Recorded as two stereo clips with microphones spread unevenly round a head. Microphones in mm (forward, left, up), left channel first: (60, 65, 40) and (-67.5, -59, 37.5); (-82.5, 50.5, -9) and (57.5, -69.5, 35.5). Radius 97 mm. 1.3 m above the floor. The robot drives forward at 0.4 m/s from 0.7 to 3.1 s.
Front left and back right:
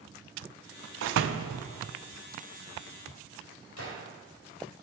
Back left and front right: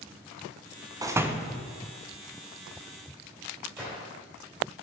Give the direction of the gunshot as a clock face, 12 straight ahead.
11 o'clock.